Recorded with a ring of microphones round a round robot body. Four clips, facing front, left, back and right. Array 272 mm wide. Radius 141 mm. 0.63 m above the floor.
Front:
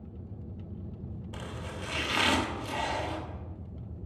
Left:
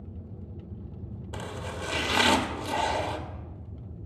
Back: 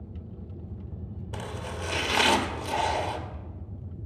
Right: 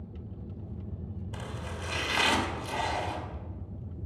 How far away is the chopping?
About 1.5 m.